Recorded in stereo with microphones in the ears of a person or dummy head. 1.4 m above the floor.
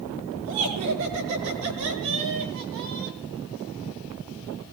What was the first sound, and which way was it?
Laughter, 80° right.